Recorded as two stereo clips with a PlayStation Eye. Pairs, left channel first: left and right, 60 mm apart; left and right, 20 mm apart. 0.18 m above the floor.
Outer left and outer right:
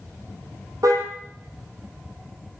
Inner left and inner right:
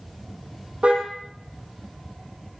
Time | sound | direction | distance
0.8 | a car horn | 65° right (ahead or behind) | 4 m